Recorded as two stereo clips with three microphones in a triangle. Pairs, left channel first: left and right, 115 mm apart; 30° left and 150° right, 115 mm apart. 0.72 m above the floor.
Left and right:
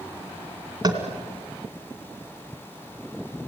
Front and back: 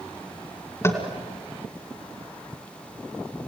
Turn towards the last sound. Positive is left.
turn(degrees=-35)